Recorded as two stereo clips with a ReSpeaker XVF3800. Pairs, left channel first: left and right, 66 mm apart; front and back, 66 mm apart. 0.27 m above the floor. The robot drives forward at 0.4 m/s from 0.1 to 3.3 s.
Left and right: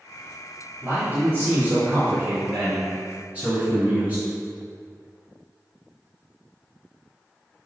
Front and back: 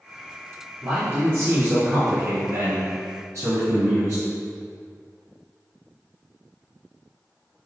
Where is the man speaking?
125° right, 1.6 m; by 4.2 s 155° right, 2 m.